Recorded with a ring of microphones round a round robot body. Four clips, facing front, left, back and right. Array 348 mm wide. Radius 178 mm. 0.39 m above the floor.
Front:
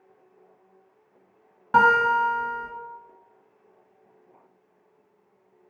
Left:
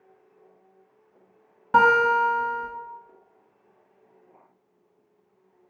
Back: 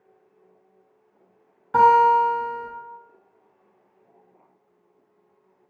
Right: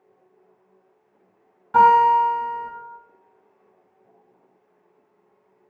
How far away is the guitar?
About 0.8 m.